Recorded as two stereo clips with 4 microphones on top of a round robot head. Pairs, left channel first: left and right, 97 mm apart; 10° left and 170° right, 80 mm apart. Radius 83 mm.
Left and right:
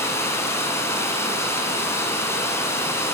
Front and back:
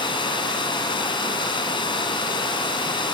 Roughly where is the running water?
Ahead left.